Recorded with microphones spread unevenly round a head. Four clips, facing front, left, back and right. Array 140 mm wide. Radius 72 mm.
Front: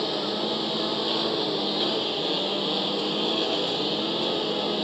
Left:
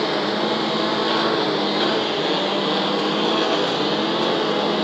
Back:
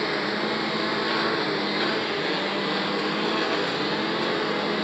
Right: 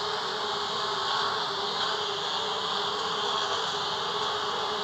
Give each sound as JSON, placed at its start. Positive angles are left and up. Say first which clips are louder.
{"t": 0.0, "sound": "a lawn mower", "louder": "left 10 dB, back 2 dB", "azimuth_deg": 80}